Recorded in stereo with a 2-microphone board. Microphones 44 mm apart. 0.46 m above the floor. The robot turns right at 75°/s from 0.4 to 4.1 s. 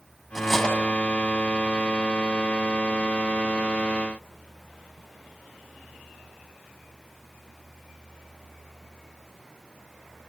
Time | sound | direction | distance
0.3 | cutlery clinking | centre (ahead or behind) | 2 m